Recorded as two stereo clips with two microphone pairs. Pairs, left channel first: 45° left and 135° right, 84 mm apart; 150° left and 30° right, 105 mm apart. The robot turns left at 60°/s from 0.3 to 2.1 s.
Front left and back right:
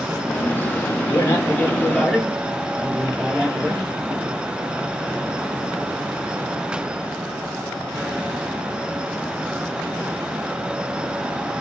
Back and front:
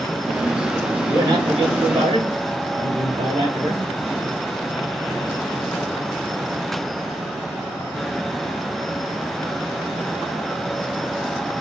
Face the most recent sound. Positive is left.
turn(degrees=-50)